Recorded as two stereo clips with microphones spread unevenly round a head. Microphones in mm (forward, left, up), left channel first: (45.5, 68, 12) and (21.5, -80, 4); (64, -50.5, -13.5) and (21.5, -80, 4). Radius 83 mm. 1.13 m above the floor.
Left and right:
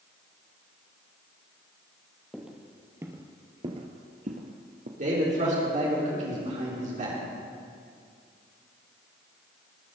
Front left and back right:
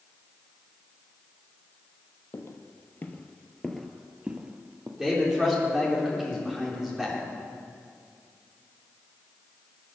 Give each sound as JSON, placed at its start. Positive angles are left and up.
{"t": 2.3, "sound": "footsteps", "azimuth_deg": -10, "distance_m": 1.8}
{"t": 5.0, "sound": "a man speaking", "azimuth_deg": -65, "distance_m": 4.0}